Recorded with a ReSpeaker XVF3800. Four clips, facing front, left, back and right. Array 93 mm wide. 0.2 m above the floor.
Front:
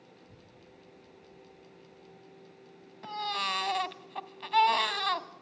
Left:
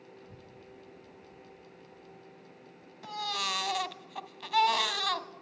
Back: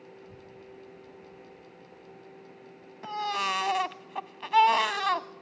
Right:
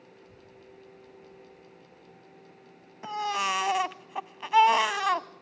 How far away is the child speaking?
About 4 m.